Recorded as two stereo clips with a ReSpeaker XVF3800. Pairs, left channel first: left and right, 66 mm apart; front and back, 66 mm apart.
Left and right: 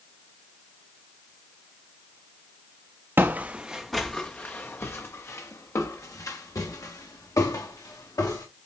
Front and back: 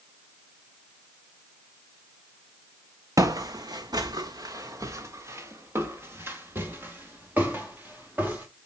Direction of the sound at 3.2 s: 145° right.